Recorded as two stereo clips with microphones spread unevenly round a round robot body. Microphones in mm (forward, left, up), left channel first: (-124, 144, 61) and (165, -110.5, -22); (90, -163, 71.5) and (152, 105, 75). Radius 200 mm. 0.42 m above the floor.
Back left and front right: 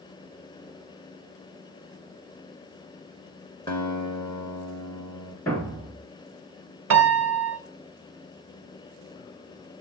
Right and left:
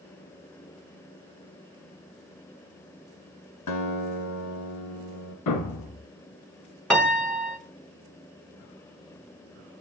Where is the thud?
140° right, 1.3 m.